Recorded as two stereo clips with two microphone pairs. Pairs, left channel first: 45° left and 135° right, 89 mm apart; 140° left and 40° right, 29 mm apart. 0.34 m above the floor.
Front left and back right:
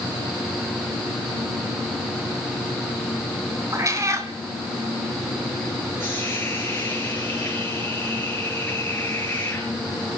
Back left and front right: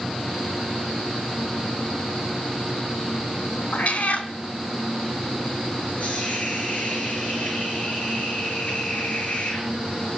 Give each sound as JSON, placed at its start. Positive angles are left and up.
{"t": 3.7, "sound": "a cat meowing", "azimuth_deg": 170, "distance_m": 1.4}
{"t": 6.0, "sound": "a hiss", "azimuth_deg": 110, "distance_m": 4.0}